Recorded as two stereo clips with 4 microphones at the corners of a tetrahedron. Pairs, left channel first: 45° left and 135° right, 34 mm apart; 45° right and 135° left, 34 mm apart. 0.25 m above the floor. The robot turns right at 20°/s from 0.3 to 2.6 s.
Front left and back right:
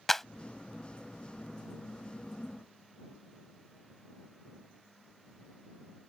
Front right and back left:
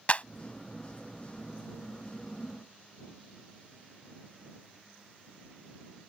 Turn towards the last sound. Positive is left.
turn(degrees=10)